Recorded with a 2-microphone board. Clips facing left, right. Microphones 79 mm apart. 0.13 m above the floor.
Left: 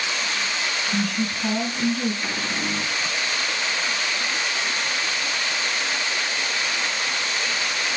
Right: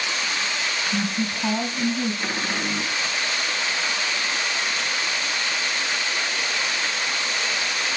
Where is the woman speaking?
30° right (ahead or behind), 3 m.